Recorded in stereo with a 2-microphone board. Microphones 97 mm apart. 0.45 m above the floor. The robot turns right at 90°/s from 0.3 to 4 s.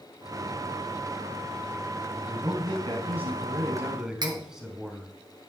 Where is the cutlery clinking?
50° right (ahead or behind), 2 m.